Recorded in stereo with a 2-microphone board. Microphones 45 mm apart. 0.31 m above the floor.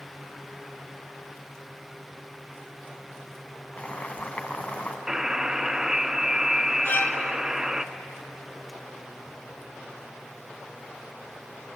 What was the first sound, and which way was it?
Boiling, 35° left (ahead or behind).